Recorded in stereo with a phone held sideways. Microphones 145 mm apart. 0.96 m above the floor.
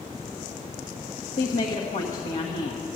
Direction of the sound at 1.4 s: 55° left (ahead or behind).